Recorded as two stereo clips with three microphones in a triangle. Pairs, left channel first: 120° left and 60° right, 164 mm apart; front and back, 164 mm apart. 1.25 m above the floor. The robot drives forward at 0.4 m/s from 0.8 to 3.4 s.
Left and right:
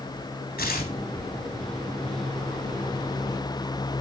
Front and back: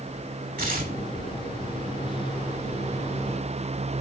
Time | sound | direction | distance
0.6 | tearing paper | 150° left | 2.5 m